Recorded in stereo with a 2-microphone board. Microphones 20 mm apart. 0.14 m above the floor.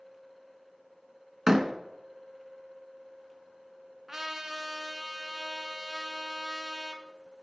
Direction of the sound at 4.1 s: 20° right (ahead or behind).